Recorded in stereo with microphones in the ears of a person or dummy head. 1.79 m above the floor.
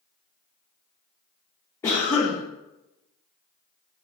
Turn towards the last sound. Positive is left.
turn(degrees=15)  # may be behind; listen again after turning